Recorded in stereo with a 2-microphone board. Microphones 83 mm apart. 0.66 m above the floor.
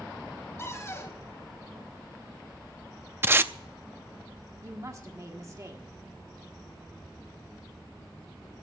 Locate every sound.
0.6 s a cupboard door: 30° left (ahead or behind), 2.5 m
3.2 s tape being pulled: 25° right (ahead or behind), 0.5 m
4.6 s a woman speaking: 40° right (ahead or behind), 1.5 m